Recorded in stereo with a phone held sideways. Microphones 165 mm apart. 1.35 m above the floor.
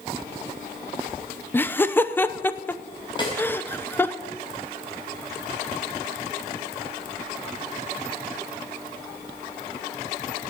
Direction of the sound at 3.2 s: 30° left (ahead or behind).